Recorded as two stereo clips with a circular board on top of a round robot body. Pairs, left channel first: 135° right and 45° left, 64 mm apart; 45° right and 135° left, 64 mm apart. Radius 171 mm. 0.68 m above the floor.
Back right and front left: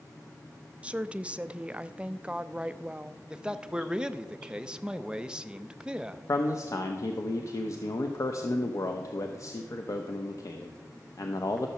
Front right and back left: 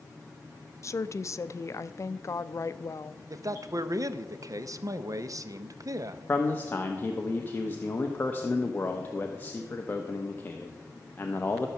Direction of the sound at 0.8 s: 20° right.